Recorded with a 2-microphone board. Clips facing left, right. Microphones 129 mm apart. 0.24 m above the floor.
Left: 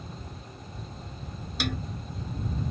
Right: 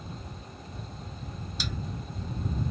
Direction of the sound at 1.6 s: 65° left (ahead or behind).